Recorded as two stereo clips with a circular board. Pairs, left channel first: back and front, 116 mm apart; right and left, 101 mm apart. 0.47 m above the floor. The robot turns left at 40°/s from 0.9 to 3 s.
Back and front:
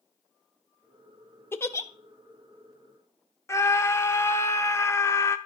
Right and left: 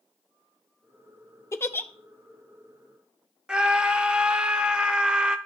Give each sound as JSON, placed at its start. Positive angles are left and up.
{"t": 1.5, "sound": "a giggle", "azimuth_deg": -125, "distance_m": 0.6}
{"t": 3.5, "sound": "a scream", "azimuth_deg": 160, "distance_m": 0.8}